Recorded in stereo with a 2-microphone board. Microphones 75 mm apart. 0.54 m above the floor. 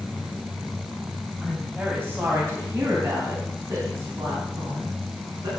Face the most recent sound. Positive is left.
turn(degrees=-55)  # may be behind; listen again after turning